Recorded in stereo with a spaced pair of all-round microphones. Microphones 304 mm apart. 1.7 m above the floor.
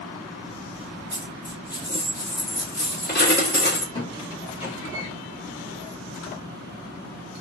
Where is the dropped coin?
30° left (ahead or behind), 1.4 m.